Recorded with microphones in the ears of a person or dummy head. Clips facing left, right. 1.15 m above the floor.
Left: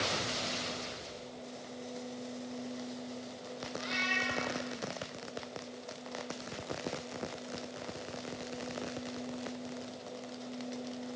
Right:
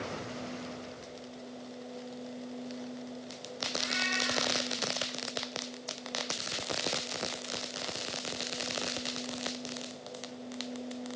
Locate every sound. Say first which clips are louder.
3.8 s a cat meowing: right 1 dB; 35° right (ahead or behind), 6 m